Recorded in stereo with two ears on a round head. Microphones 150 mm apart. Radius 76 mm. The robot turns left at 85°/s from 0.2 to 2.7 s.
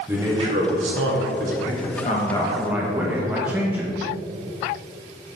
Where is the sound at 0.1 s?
15° right, 1.6 m; by 1.6 s 130° right, 1.6 m.